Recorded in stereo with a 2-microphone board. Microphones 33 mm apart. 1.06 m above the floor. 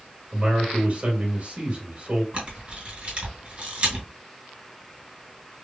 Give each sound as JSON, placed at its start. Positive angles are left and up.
{"t": 0.3, "sound": "a man speaking", "side_deg": -45, "distance_m": 1.9}
{"t": 2.3, "sound": "a camera shutter", "side_deg": -40, "distance_m": 2.5}